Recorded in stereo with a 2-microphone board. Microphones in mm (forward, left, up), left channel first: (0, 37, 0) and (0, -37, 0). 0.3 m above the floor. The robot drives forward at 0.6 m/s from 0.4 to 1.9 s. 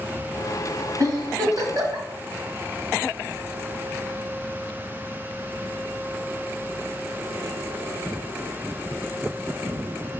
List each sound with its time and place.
1.0 s a giggle: 50° right (ahead or behind), 1.6 m